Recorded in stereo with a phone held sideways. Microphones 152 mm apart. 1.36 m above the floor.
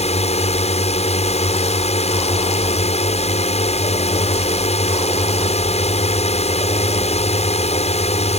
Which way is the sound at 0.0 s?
45° left (ahead or behind).